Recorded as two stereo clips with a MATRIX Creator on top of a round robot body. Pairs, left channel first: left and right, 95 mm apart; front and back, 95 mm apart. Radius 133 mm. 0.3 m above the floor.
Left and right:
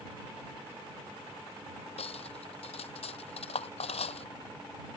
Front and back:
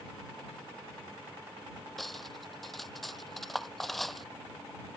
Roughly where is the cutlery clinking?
Left.